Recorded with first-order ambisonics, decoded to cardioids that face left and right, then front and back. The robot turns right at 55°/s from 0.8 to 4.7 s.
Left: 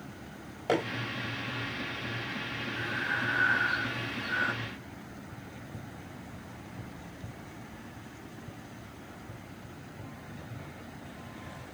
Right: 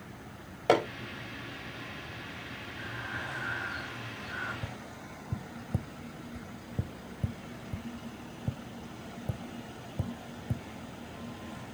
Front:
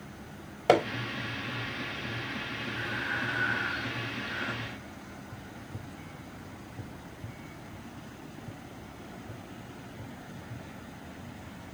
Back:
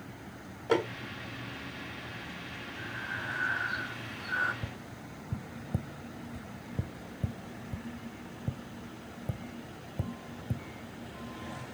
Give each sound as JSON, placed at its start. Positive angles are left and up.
{"t": 0.7, "sound": "hammering", "azimuth_deg": -25, "distance_m": 3.5}
{"t": 2.8, "sound": "breathing", "azimuth_deg": 45, "distance_m": 4.0}
{"t": 4.6, "sound": "tapping", "azimuth_deg": -140, "distance_m": 0.7}